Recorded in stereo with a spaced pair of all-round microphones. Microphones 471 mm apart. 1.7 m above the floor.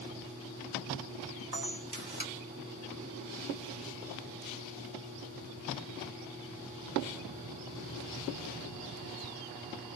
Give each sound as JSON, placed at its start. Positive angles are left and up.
{"t": 1.5, "sound": "a camera shutter", "side_deg": -55, "distance_m": 1.2}